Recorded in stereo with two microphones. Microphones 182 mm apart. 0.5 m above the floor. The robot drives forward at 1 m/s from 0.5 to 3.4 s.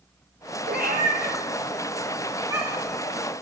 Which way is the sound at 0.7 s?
65° right (ahead or behind).